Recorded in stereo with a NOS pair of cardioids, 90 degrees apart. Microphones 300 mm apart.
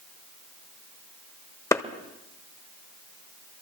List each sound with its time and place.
1.7 s a clap: 10° left, 1.5 m